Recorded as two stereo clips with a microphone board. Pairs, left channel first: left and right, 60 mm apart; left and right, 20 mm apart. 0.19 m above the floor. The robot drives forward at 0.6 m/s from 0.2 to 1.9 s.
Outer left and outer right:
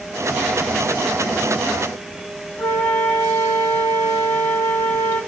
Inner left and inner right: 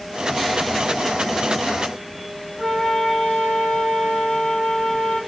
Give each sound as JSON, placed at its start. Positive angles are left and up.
{"t": 2.6, "sound": "a flute", "side_deg": 85, "distance_m": 6.5}